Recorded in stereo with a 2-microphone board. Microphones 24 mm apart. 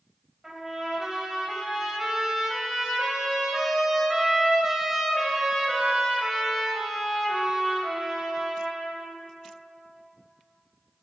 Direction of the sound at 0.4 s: 15° right (ahead or behind).